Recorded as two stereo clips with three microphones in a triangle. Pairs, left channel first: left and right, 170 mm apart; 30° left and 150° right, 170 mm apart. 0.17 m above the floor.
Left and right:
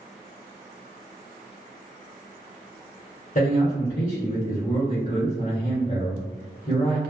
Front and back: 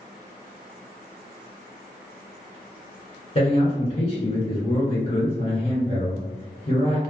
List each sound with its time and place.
3.4 s a man speaking: 75° left, 1.6 m